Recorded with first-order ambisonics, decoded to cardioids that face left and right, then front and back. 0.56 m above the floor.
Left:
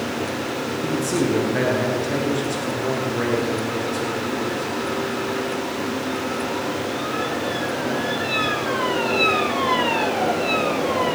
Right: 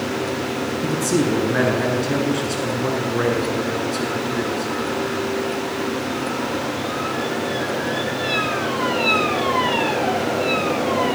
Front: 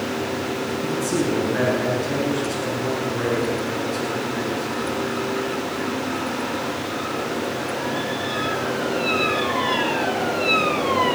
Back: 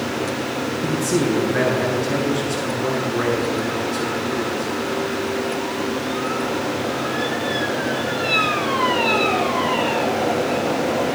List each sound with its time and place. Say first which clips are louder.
0.8 s a man speaking: right 2 dB, back 3 dB; 90° right, 7.5 m